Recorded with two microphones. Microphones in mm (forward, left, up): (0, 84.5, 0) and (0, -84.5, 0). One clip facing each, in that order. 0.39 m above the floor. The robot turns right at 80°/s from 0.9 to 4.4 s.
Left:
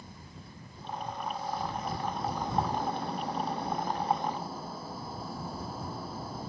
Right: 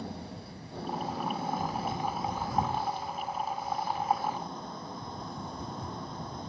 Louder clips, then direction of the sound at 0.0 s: Right 9 dB; 105° right.